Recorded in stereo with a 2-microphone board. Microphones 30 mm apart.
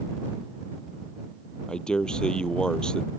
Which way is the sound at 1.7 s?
25° left (ahead or behind).